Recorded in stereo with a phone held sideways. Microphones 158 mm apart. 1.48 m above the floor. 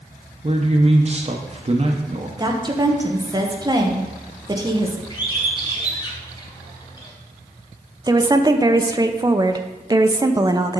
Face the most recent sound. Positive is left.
turn(degrees=-25)  # may be behind; listen again after turning